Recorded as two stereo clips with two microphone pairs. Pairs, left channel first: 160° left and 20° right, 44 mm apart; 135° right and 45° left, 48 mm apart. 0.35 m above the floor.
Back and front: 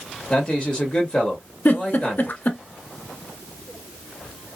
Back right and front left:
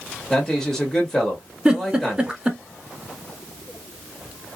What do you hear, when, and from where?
0.3 s a man speaking: 165° left, 1.5 m
1.6 s a giggle: 115° left, 0.9 m